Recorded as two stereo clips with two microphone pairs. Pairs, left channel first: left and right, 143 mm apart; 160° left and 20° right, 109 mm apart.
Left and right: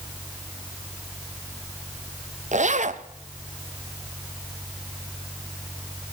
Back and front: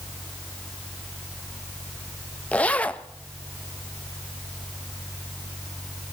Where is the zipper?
120° right, 0.6 m.